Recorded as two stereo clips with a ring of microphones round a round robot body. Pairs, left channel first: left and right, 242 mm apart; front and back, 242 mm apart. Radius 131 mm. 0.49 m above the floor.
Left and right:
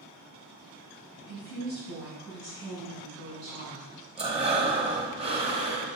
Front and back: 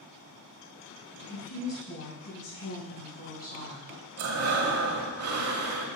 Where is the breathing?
155° right, 1.2 m.